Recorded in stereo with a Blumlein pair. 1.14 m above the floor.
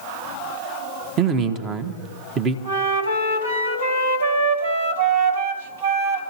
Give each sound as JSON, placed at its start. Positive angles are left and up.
{"t": 1.2, "sound": "a man speaking", "azimuth_deg": -30, "distance_m": 1.4}
{"t": 2.6, "sound": "a flute", "azimuth_deg": -70, "distance_m": 3.0}